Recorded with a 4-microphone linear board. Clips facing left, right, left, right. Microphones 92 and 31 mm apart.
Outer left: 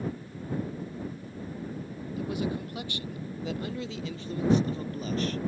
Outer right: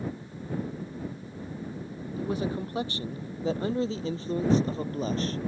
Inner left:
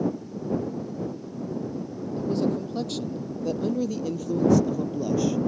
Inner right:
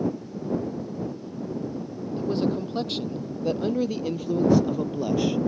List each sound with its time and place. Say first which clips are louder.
2.2 s a man speaking: outer right 2 dB, even; 35° right (ahead or behind)